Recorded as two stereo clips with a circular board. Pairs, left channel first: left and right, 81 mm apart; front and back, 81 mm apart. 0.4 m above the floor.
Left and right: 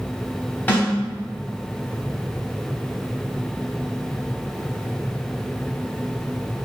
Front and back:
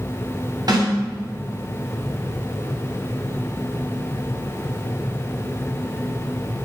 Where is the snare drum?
155° left, 3 m.